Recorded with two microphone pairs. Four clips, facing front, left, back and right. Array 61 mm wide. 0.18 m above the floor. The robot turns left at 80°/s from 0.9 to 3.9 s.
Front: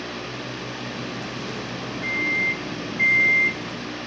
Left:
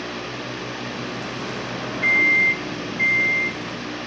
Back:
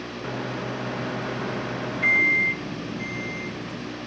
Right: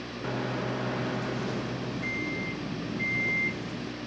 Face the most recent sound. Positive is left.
turn(degrees=-25)